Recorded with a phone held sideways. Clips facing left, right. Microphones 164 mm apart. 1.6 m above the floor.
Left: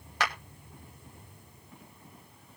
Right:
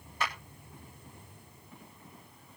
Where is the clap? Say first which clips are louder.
Left 3 dB; 80° left, 2.0 m.